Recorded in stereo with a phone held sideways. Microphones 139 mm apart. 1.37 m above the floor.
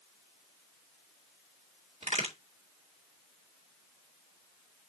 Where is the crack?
50° right (ahead or behind), 2 m.